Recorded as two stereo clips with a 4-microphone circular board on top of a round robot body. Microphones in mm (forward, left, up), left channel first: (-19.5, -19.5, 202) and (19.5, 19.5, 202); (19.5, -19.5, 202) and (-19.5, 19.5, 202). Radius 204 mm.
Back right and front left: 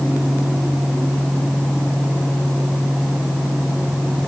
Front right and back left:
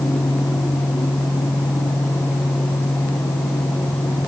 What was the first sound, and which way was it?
Only background noise.